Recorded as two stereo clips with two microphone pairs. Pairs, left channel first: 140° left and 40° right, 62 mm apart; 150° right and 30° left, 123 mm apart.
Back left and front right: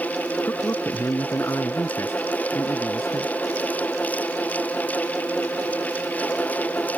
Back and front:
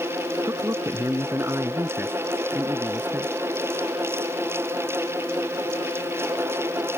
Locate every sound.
0.5 s a man speaking: 95° left; by 3.3 s 110° left